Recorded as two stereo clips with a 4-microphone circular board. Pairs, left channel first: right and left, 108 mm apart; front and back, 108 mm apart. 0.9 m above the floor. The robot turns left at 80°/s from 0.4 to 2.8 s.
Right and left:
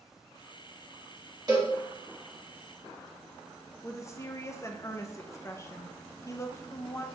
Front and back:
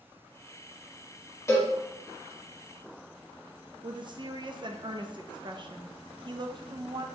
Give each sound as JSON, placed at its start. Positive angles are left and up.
{"t": 1.5, "sound": "a cowbell", "azimuth_deg": 55, "distance_m": 1.2}
{"t": 3.8, "sound": "a woman speaking", "azimuth_deg": -145, "distance_m": 0.5}